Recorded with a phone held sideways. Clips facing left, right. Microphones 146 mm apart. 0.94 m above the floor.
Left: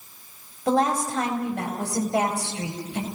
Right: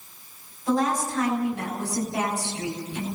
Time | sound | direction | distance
0.7 | a woman speaking | 70° left (ahead or behind) | 6 m